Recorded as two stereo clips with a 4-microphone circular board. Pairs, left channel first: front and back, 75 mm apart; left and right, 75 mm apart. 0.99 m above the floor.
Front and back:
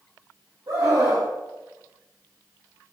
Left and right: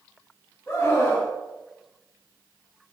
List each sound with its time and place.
0.7 s a scream: 170° left, 6 m